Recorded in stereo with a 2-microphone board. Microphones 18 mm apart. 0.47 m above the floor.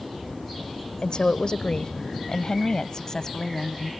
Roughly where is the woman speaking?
Left.